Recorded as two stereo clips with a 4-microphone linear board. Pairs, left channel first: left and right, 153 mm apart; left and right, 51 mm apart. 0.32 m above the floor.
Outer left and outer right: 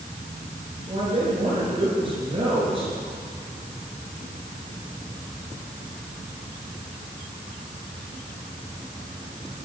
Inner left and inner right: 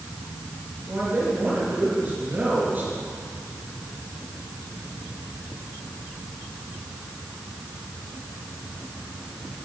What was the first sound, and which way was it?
A man speaking, 35° right (ahead or behind).